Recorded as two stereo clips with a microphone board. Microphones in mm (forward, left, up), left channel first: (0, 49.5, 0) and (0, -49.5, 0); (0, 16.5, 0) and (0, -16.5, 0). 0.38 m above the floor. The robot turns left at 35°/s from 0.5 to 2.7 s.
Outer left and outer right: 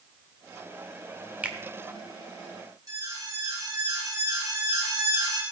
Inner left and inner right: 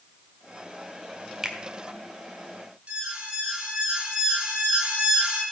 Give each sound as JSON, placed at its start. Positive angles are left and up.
{"t": 1.4, "sound": "a finger snap", "side_deg": -15, "distance_m": 1.1}
{"t": 2.9, "sound": "an alarm", "side_deg": -40, "distance_m": 4.0}